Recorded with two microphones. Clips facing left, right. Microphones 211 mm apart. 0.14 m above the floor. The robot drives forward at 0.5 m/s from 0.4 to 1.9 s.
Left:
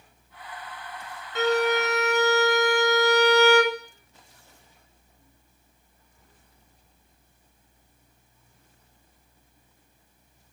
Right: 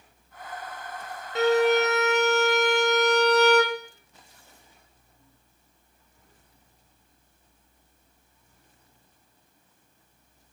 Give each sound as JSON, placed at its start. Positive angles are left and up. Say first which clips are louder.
{"t": 1.4, "sound": "a violin", "louder": "right 3 dB", "side_deg": -35, "distance_m": 0.5}